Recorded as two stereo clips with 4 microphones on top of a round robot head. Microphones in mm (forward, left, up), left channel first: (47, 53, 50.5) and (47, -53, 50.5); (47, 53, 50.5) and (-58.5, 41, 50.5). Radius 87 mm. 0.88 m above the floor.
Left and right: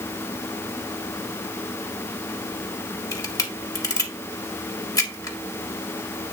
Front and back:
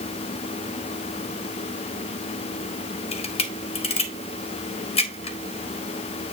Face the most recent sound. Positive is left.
turn(degrees=35)